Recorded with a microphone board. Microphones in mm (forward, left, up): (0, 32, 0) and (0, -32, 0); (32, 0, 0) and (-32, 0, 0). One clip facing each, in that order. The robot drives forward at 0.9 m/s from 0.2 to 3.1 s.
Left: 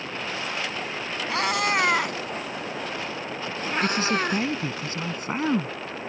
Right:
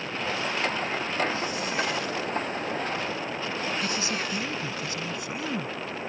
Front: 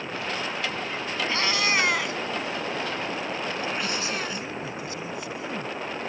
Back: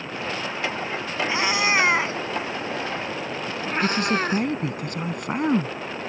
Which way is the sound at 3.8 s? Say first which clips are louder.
Left 6 dB, back 7 dB; 140° left.